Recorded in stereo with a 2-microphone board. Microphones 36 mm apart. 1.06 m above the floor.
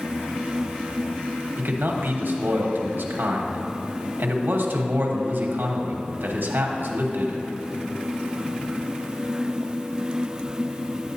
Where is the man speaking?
70° right (ahead or behind), 1.2 m.